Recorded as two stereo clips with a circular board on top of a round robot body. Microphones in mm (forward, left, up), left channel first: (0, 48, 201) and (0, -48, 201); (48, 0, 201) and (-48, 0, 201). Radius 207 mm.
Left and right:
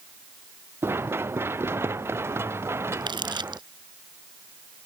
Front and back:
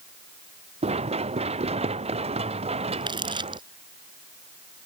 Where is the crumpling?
135° right.